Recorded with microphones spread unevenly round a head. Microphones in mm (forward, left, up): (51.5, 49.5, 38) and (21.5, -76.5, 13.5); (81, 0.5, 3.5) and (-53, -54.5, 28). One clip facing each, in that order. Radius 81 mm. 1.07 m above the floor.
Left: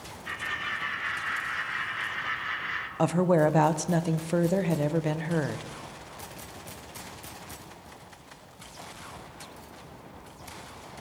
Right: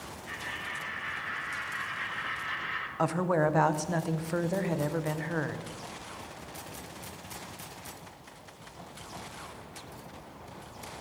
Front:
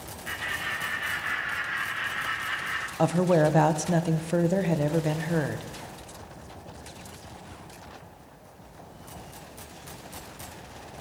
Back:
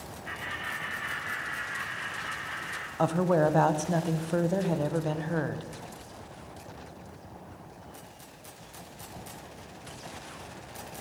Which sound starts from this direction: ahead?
A woman speaking, at 3.0 s.